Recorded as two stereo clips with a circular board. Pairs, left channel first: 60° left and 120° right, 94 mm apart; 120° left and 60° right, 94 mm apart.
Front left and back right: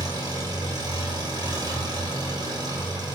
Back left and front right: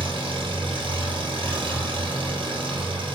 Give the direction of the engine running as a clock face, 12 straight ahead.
3 o'clock.